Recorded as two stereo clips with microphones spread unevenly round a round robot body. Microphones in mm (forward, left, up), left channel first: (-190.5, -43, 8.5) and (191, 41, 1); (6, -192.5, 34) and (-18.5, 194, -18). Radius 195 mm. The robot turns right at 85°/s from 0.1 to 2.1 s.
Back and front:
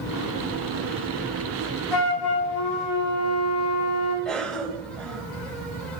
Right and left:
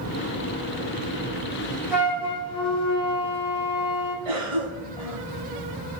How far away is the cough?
About 4 m.